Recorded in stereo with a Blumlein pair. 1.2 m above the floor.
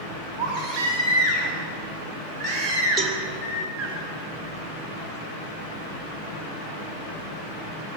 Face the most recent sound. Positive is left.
turn(degrees=-20)